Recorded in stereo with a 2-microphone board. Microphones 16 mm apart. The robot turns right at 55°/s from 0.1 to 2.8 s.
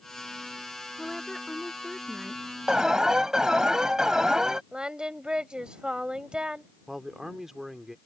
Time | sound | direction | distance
1.0 | a woman speaking | 135° left | ?
2.7 | an alarm | 50° right (ahead or behind) | ?
4.7 | singing | 70° right (ahead or behind) | ?
6.9 | a man speaking | 30° right (ahead or behind) | ?